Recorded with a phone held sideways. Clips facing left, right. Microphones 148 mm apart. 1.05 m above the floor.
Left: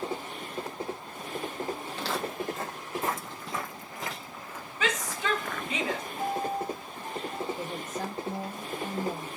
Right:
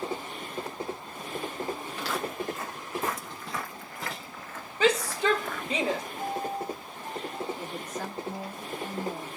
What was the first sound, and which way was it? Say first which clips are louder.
Footsteps: even; 30° left (ahead or behind).